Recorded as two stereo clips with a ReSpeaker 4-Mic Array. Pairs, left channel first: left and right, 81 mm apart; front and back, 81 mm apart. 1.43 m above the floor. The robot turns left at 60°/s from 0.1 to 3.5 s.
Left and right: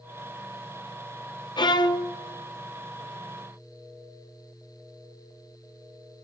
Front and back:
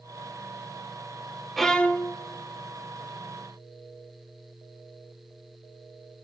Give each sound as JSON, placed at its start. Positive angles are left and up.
{"t": 1.6, "sound": "a violin", "azimuth_deg": 90, "distance_m": 0.6}